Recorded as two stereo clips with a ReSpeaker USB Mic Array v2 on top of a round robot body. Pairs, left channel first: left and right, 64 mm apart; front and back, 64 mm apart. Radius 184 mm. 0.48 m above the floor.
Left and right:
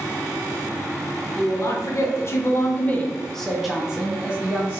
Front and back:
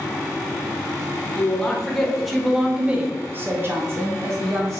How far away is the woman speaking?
About 1.2 m.